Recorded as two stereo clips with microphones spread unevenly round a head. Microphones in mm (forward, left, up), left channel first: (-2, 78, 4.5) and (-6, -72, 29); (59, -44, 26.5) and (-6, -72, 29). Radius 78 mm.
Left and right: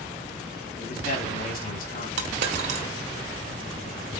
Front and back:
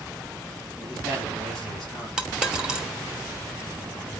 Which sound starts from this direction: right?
A dropped coin, at 2.2 s.